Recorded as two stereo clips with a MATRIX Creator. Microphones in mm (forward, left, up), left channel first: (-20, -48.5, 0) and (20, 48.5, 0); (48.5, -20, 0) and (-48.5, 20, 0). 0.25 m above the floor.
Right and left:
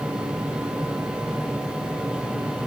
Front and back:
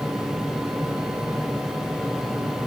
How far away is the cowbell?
No cowbell in this recording.